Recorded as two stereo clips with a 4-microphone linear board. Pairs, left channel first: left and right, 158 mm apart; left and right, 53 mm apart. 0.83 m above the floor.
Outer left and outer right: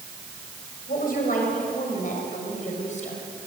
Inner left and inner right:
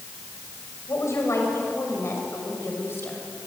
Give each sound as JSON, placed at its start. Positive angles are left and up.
{"t": 0.9, "sound": "a woman speaking", "side_deg": 60, "distance_m": 5.0}